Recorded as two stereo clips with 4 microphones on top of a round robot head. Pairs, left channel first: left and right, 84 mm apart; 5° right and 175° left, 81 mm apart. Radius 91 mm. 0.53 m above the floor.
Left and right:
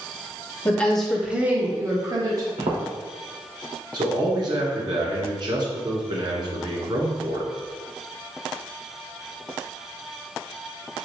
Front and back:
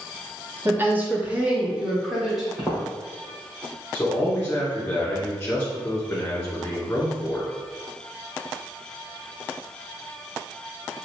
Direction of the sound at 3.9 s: 70° right.